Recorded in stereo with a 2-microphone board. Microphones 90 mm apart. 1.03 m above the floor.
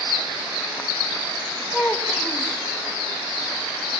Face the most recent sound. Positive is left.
turn(degrees=5)  # may be behind; listen again after turning